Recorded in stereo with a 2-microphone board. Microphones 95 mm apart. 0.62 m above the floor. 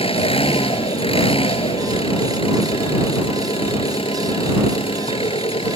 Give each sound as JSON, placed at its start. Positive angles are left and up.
{"t": 0.0, "sound": "an engine running", "side_deg": 80}